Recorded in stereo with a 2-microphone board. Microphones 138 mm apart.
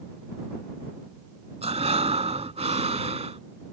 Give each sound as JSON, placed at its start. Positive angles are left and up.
{"t": 1.6, "sound": "breathing", "side_deg": -50}